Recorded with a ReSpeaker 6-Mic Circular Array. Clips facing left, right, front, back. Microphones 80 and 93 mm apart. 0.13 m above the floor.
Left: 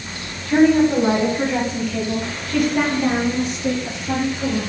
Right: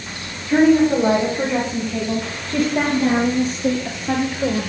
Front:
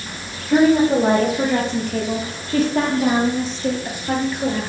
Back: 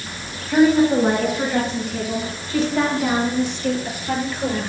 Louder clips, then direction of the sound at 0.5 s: Even, front 1 dB; 15° right.